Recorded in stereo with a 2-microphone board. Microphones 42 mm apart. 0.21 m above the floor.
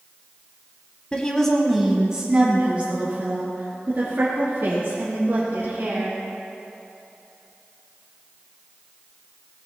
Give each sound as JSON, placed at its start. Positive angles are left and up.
{"t": 1.1, "sound": "a woman speaking", "side_deg": 25, "distance_m": 1.4}